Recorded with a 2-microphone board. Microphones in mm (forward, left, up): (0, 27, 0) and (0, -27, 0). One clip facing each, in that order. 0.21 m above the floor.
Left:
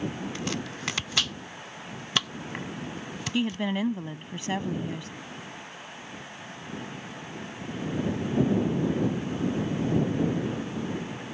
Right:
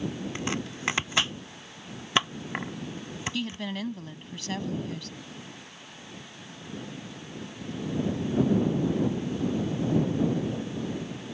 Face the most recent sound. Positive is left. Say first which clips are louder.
# left 8 dB
turn(degrees=25)  # may be behind; listen again after turning